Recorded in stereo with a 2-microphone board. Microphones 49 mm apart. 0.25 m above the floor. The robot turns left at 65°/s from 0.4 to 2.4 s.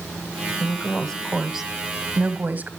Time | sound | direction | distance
0.6 | a woman speaking | 50° left | 1.2 m